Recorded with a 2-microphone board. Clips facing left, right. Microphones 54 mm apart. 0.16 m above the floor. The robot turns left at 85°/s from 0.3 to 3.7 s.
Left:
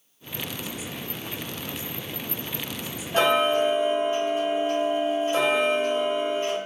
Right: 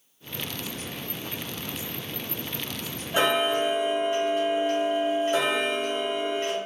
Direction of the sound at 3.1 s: 25° right.